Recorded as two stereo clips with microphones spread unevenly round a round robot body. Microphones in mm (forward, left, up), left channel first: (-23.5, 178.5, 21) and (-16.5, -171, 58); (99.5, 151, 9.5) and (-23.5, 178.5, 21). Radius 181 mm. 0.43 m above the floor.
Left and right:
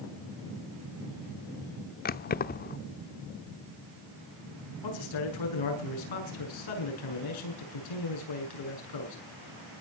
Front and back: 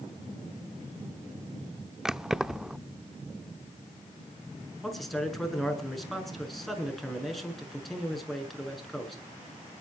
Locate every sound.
2.0 s keys jangling: 75° left, 0.5 m
4.8 s a man speaking: 75° left, 7 m